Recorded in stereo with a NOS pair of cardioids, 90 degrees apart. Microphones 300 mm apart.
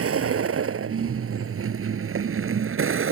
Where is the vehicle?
50° right; by 3.1 s 45° right.